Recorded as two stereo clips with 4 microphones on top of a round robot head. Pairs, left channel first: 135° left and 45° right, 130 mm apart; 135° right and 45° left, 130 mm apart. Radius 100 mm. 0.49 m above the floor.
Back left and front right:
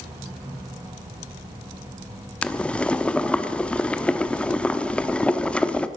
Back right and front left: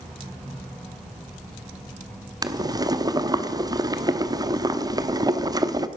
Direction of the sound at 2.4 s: 60° left.